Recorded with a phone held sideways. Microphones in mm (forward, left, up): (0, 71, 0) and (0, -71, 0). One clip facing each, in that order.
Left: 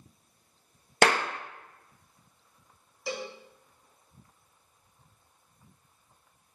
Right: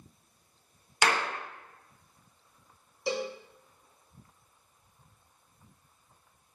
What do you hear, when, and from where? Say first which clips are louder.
1.0 s a clap: left 4 dB; 65° left (ahead or behind), 0.8 m
3.1 s a cowbell: right 4 dB; 25° right (ahead or behind), 0.8 m